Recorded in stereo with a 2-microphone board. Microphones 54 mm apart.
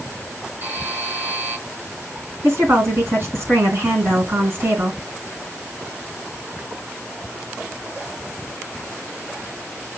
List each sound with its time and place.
0.6 s a buzzer: 35° right (ahead or behind), 1.8 m
2.4 s a woman speaking: 50° right (ahead or behind), 2 m